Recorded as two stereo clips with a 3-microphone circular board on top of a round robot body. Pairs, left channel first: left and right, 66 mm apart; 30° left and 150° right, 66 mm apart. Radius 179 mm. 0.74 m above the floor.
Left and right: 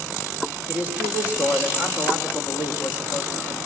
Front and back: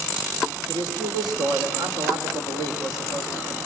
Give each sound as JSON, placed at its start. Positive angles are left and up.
{"t": 0.7, "sound": "a man speaking", "azimuth_deg": -155, "distance_m": 4.0}